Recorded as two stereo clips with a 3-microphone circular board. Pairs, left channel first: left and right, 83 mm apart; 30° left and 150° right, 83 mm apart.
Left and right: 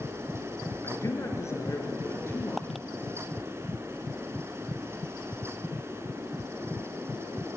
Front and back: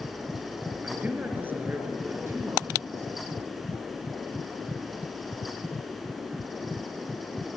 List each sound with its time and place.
0.8 s a man speaking: 140° left, 4 m; by 3.3 s 155° left, 5.5 m